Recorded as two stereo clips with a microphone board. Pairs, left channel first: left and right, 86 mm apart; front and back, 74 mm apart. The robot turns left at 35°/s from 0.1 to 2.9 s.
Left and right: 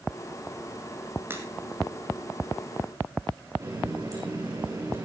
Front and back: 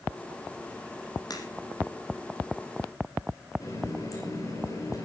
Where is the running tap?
45° right, 6.5 m.